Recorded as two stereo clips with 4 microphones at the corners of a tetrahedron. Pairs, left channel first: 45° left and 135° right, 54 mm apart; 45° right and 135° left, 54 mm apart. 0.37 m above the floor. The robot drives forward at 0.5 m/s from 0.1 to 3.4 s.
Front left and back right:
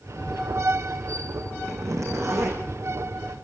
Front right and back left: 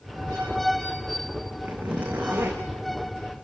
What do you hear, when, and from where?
1.6 s a zipper: 165° right, 8 m